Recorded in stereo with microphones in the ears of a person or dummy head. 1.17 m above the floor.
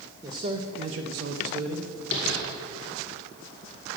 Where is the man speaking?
20° right (ahead or behind), 0.7 m; by 1.9 s 60° right (ahead or behind), 1.1 m.